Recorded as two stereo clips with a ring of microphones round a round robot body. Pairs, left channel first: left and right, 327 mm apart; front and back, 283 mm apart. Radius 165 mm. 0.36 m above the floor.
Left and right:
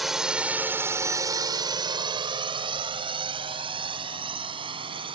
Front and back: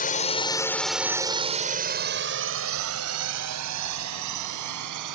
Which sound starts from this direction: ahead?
A drone, at 0.0 s.